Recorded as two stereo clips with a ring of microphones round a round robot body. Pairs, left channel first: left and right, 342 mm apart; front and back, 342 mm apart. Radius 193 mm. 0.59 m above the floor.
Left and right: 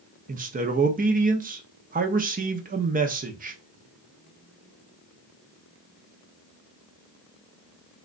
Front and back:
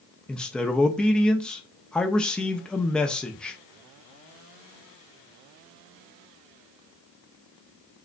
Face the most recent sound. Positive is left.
turn(degrees=-85)